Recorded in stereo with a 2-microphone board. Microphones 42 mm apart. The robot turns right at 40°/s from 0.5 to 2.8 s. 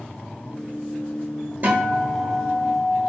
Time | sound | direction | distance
1.6 | a guitar | 105° right | 0.8 m